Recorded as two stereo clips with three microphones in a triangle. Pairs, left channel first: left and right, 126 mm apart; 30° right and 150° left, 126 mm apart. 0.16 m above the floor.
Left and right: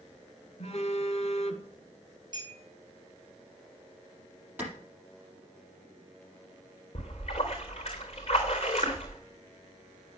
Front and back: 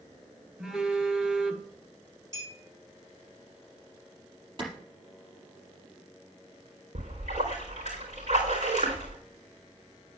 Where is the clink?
145° right, 6.5 m.